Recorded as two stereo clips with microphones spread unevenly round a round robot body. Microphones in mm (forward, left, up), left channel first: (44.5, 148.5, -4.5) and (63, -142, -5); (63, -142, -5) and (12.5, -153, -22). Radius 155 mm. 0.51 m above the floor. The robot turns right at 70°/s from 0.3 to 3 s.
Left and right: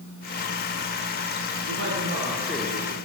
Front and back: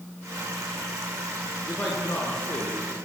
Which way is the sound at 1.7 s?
55° right.